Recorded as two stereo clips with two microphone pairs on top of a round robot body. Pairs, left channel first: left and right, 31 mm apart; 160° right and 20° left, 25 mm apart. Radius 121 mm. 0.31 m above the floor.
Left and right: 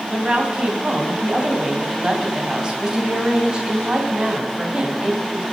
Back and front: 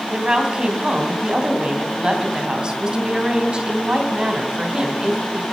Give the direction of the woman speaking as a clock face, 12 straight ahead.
1 o'clock.